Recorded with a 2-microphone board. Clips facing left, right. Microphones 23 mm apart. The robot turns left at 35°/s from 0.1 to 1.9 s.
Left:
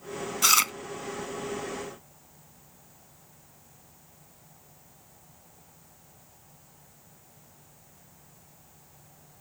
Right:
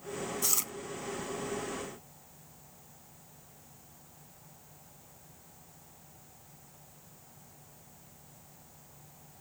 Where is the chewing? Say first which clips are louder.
Left 14 dB; 75° left (ahead or behind); by 0.7 s 65° left (ahead or behind).